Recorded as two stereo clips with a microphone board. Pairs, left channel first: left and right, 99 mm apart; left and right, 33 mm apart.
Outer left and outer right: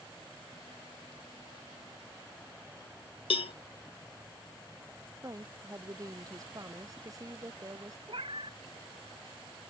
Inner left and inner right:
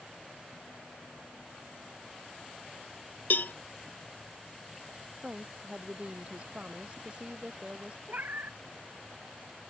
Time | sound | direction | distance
3.3 | a cowbell | 70° left (ahead or behind) | ?
5.2 | a woman speaking | 35° right (ahead or behind) | ?
8.1 | a cat meowing | 65° right (ahead or behind) | ?